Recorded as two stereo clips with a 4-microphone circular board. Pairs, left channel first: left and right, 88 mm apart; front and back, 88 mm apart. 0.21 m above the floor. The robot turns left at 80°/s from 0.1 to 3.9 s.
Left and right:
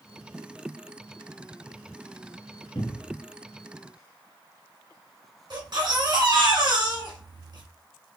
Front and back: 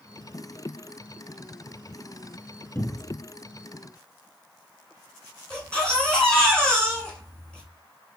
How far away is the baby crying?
About 2.0 m.